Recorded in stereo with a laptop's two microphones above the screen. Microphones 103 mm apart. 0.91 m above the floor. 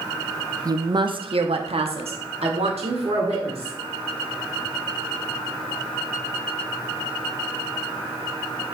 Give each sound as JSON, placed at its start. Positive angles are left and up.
{"t": 0.7, "sound": "a woman speaking", "side_deg": -35, "distance_m": 0.9}